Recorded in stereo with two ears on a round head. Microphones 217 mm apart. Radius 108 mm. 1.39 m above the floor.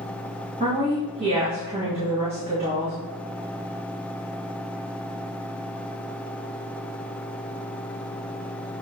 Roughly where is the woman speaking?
Right.